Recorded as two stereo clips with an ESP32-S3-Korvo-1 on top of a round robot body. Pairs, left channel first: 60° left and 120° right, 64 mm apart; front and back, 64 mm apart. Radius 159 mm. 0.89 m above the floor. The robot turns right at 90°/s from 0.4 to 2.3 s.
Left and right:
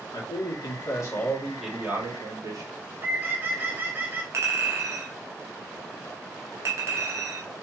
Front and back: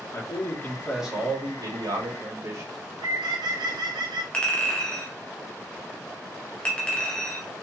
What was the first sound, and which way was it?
A man speaking, 40° left.